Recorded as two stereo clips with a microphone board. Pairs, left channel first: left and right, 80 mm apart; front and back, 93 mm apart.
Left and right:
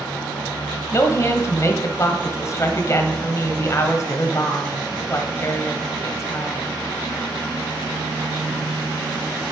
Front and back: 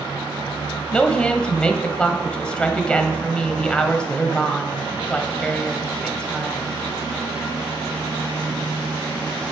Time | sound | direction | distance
0.9 | a woman speaking | 75° left | 1.1 m